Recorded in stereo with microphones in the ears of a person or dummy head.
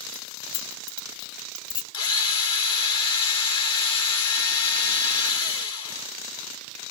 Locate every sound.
0.1 s keys jangling: 20° left (ahead or behind), 0.7 m
1.9 s a drill: 30° left (ahead or behind), 1.6 m